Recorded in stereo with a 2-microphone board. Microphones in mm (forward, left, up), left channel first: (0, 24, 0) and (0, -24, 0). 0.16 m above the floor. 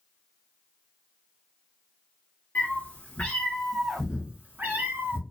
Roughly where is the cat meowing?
Left.